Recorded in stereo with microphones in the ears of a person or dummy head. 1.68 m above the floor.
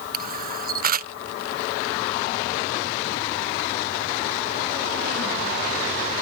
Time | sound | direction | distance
0.1 | a camera shutter | 45° right (ahead or behind) | ?